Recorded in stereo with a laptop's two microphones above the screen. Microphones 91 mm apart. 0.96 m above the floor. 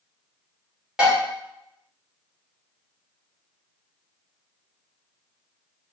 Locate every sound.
1.0 s dishes clattering: 5° right (ahead or behind), 0.9 m